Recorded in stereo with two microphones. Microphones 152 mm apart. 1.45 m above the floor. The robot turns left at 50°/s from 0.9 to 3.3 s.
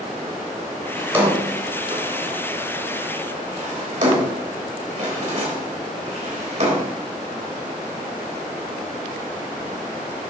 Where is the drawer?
5° right (ahead or behind), 3 m; by 6.9 s 55° right (ahead or behind), 3 m.